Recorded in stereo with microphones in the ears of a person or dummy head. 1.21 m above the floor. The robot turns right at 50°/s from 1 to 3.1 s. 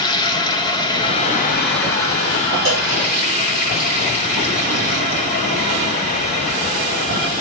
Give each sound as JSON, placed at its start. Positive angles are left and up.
{"t": 0.0, "sound": "running water", "azimuth_deg": 25, "distance_m": 1.1}
{"t": 2.6, "sound": "a cowbell", "side_deg": -30, "distance_m": 2.5}